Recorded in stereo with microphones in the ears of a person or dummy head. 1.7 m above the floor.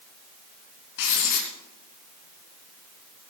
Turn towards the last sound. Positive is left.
turn(degrees=65)  # may be behind; listen again after turning